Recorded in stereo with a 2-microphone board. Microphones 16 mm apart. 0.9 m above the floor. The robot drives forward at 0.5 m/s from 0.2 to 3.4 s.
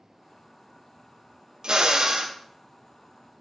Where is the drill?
60° right (ahead or behind), 0.8 m; by 2.4 s 40° right (ahead or behind), 1.0 m.